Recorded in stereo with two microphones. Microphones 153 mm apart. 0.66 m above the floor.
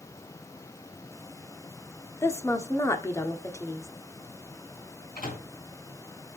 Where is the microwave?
60° left (ahead or behind), 4.5 m.